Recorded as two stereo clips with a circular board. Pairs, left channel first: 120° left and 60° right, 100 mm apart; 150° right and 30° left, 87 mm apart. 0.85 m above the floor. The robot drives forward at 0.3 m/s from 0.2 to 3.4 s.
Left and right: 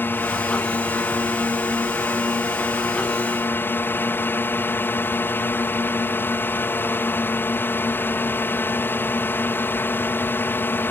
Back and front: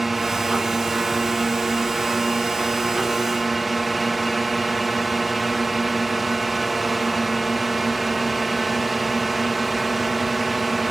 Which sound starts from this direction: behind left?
A drone, at 0.0 s.